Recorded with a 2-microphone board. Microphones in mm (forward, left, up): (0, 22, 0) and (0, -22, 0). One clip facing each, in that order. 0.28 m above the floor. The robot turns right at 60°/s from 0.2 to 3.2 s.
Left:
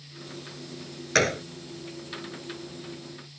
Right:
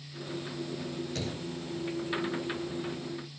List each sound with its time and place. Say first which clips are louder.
1.1 s a gunshot: left 13 dB; 80° left; by 1.4 s 65° left (ahead or behind)